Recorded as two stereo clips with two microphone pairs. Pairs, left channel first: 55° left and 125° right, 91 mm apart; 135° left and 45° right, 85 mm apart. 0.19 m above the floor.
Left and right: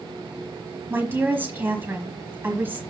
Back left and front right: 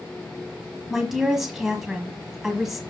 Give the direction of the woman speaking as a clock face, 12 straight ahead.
4 o'clock.